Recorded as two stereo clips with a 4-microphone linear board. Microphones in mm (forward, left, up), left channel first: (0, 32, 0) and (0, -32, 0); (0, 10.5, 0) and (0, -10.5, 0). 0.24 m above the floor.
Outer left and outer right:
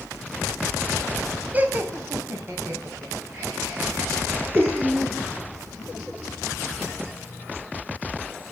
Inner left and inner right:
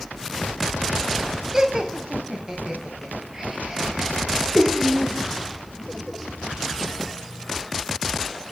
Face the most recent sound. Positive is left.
turn(degrees=-35)  # may be behind; listen again after turning